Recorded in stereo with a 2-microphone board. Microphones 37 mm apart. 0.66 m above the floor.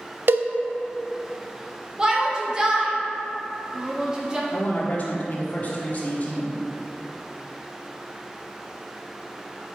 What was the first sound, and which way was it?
A cowbell, 70° right (ahead or behind).